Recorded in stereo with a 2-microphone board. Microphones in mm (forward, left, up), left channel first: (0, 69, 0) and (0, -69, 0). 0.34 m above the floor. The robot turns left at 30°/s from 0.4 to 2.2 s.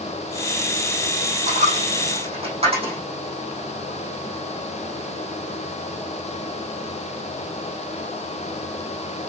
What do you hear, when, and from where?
1.5 s a dropped coin: 65° right (ahead or behind), 7.5 m; by 3.0 s 45° right (ahead or behind), 7.5 m